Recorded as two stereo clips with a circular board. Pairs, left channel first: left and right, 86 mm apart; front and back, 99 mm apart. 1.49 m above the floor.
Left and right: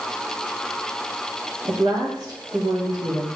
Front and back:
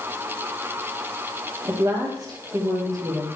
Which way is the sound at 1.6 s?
130° right.